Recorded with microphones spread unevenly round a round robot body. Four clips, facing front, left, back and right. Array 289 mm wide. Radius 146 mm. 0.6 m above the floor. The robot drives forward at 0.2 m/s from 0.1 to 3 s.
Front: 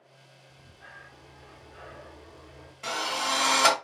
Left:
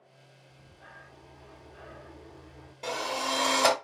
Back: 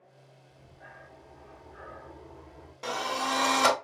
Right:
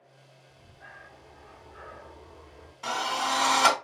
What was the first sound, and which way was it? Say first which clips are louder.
Breathing: right 2 dB, even; 140° left.